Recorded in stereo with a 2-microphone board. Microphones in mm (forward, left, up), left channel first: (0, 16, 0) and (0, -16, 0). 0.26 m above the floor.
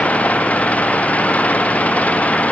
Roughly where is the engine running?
Left.